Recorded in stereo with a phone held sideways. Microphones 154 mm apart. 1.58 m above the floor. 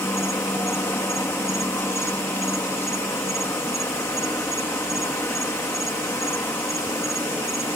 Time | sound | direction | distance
0.0 | an insect | 15° left (ahead or behind) | ?